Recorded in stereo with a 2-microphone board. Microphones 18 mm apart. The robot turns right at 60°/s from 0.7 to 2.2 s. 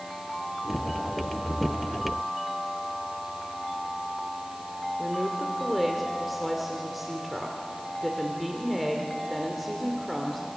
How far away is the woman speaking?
About 2.5 m.